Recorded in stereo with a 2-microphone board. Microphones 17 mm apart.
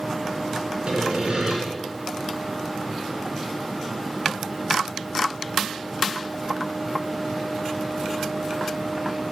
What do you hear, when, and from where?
0.9 s sawing: 60° right (ahead or behind), 4 m